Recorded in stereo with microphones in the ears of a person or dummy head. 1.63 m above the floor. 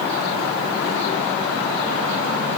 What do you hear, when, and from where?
Only background noise.